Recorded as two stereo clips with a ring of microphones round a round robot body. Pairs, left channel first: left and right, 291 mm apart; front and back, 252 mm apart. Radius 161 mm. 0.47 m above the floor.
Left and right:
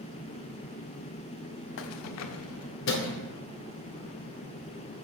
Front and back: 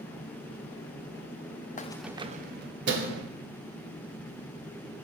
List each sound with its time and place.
1.8 s keys jangling: 55° left, 0.6 m; by 3.2 s 145° left, 1.8 m